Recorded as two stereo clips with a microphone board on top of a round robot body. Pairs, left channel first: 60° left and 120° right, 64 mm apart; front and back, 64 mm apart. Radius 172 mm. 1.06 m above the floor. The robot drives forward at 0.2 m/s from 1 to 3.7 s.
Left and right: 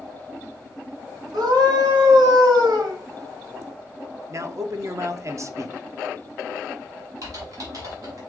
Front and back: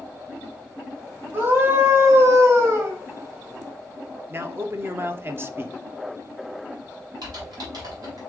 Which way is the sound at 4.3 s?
135° right.